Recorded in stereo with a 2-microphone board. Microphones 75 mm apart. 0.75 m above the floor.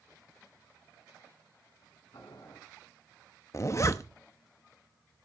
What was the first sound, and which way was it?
Boiling, 85° left.